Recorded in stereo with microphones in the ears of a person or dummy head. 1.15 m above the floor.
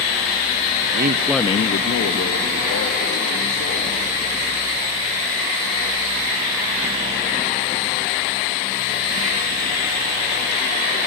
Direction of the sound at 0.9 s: 55° right (ahead or behind).